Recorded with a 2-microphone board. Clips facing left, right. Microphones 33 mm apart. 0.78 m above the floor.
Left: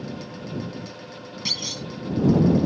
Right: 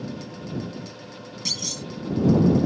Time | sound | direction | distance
1.4 | a clunk | 25° left (ahead or behind) | ?